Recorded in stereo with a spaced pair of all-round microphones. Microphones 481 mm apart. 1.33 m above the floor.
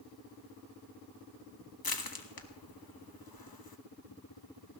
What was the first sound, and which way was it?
Crushing, 50° left (ahead or behind).